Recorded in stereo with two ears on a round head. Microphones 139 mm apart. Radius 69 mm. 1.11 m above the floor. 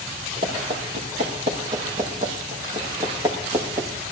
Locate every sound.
0.4 s running footsteps: 45° right (ahead or behind), 6 m; by 3.9 s 15° right (ahead or behind), 4.5 m